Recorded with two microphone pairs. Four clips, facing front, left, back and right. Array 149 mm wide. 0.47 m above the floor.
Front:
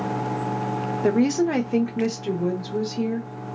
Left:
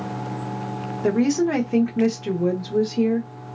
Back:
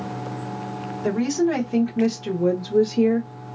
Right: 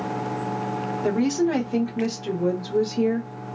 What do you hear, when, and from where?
1.0 s a woman speaking: 20° left, 1.0 m; by 3.3 s 170° left, 1.1 m